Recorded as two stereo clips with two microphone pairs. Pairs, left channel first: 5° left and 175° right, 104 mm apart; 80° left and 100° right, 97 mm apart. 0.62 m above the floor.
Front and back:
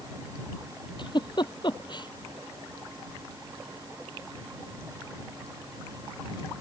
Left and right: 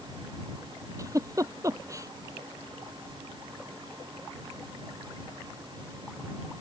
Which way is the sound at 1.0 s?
40° right.